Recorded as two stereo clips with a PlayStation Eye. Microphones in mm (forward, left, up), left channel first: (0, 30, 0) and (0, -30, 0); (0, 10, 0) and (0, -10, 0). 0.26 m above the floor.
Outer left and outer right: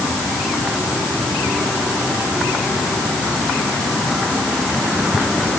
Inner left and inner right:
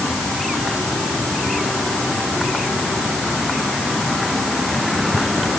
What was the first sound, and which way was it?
Only background noise.